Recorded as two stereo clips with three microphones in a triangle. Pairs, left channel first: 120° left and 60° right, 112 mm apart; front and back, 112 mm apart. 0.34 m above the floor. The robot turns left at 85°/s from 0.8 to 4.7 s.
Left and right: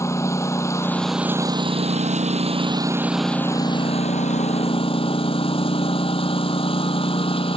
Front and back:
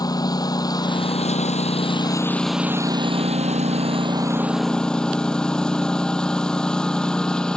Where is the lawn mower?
55° left; by 7.6 s 85° left.